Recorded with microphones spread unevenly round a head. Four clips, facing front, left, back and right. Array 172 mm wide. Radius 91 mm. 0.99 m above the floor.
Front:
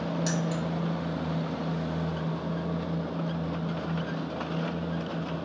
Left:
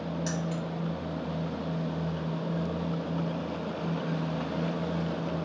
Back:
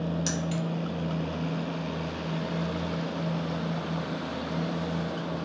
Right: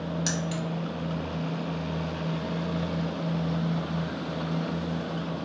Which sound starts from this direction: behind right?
Keys jangling, at 0.3 s.